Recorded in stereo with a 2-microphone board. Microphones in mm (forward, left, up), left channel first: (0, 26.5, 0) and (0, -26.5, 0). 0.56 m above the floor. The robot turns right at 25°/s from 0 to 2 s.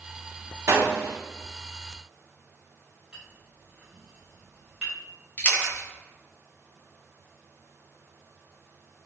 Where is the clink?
15° right (ahead or behind), 1.5 m.